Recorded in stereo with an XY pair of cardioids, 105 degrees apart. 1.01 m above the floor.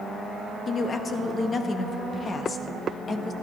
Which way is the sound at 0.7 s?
40° left.